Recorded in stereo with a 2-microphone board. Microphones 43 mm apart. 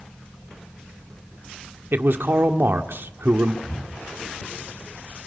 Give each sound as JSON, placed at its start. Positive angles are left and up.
{"t": 1.9, "sound": "a man speaking", "side_deg": -60, "distance_m": 1.7}
{"t": 3.6, "sound": "breathing", "side_deg": 80, "distance_m": 7.0}